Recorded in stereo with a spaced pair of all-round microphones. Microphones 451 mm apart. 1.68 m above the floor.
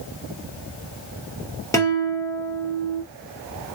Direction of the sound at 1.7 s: 5° left (ahead or behind).